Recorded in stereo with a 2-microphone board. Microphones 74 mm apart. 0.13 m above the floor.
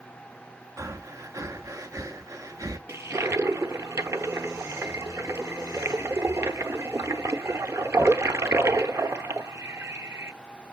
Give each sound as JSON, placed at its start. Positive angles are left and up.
{"t": 0.8, "sound": "breathing", "side_deg": -45, "distance_m": 0.6}
{"t": 2.9, "sound": "a toilet flushing", "side_deg": -40, "distance_m": 0.7}